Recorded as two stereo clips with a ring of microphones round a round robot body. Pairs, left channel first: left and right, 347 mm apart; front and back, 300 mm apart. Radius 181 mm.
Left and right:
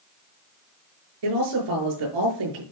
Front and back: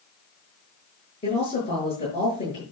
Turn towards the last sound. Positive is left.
turn(degrees=-75)